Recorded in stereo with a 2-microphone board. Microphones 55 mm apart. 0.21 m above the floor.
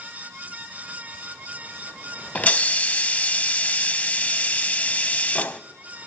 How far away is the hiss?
About 0.6 m.